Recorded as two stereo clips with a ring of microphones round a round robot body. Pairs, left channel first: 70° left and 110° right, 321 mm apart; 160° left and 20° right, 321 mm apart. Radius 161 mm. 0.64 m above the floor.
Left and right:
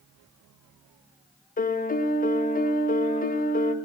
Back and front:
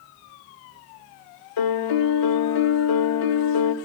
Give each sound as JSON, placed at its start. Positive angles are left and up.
{"t": 1.6, "sound": "a piano", "azimuth_deg": 135, "distance_m": 1.3}